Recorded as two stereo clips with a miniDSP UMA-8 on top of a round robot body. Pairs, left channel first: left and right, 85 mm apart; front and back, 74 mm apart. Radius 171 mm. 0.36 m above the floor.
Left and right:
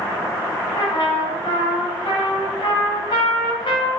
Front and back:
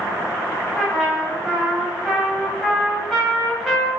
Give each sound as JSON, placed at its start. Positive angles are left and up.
{"t": 0.7, "sound": "a trumpet", "azimuth_deg": 85, "distance_m": 1.3}